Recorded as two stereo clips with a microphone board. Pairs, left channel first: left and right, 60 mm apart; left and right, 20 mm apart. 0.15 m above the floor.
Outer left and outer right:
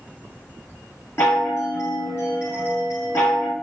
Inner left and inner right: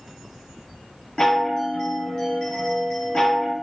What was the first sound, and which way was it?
A chime, 40° left (ahead or behind).